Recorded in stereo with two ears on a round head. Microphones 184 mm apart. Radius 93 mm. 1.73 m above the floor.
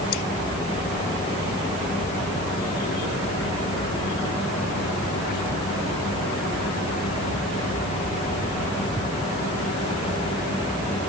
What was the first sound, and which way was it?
Only background noise.